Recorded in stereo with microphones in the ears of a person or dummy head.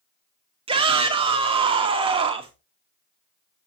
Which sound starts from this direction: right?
A shout, at 0.7 s.